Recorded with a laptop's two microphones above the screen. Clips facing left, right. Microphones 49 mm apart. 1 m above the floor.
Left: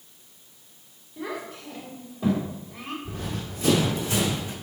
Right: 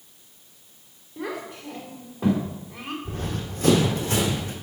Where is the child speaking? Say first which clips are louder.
Right 1 dB; 65° right (ahead or behind), 2.5 m.